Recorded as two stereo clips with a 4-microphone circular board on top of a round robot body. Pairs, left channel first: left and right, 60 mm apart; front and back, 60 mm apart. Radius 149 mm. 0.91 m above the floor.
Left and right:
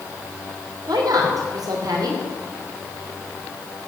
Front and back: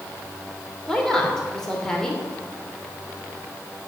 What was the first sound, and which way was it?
A woman speaking, 80° right.